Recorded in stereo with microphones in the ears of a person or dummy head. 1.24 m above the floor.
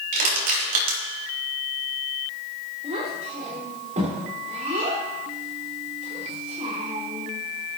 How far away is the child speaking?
About 3 m.